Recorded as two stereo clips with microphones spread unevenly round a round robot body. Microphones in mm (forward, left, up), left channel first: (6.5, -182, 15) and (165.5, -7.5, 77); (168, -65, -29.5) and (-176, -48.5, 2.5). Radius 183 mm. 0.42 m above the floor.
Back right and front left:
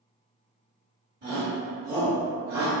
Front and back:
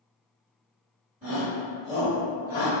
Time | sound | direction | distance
1.2 | a shout | 110° left | 1.5 m